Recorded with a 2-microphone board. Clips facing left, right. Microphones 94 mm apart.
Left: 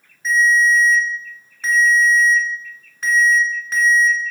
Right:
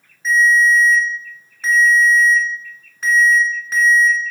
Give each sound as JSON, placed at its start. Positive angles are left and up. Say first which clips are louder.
{"t": 0.2, "sound": "a ringtone", "louder": "right 2 dB", "side_deg": 0, "distance_m": 0.8}